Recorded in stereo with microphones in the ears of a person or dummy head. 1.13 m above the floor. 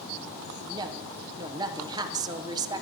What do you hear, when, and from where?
0.6 s a woman speaking: 25° right (ahead or behind), 0.5 m